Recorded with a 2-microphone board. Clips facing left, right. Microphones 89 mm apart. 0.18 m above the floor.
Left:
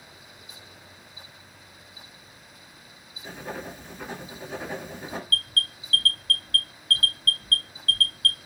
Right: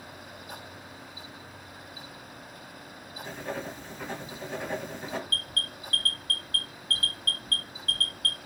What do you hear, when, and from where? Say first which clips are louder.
3.2 s writing: even; 10° left (ahead or behind), 1.4 m
5.3 s an alarm: left 4 dB; 25° right (ahead or behind), 1.8 m